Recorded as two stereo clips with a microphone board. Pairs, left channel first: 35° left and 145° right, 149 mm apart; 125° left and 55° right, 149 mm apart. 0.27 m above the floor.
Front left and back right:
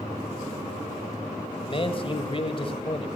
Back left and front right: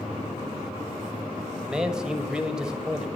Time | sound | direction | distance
1.6 | a man speaking | 25° left | 1.1 m